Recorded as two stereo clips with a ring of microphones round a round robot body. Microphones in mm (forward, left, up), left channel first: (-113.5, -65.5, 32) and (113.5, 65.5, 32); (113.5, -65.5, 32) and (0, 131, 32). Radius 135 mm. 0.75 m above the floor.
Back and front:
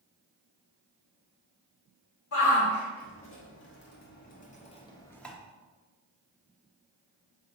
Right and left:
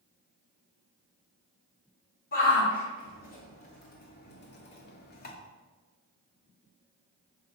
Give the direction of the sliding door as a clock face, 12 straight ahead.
No sliding door in this recording.